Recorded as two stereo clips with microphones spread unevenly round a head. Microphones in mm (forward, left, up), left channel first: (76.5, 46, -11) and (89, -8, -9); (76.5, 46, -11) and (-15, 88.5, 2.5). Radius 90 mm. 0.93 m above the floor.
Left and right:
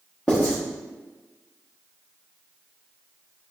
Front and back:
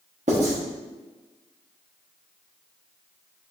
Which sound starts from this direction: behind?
Writing, at 0.3 s.